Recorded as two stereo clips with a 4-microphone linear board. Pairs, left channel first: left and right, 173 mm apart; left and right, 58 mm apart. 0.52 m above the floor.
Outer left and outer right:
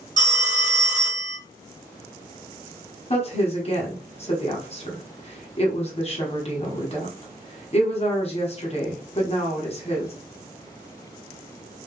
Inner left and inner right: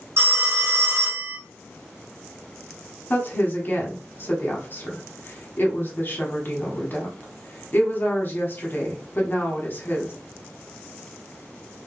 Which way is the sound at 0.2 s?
55° right (ahead or behind).